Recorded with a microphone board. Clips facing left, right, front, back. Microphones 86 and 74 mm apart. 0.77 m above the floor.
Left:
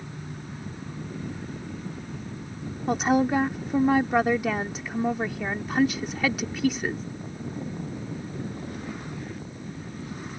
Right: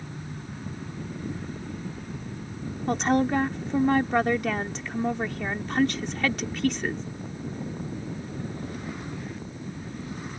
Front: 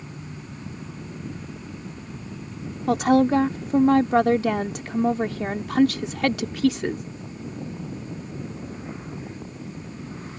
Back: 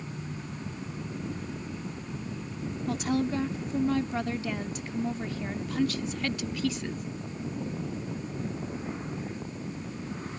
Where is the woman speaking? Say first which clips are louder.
Left 1 dB, front 11 dB; 5° left.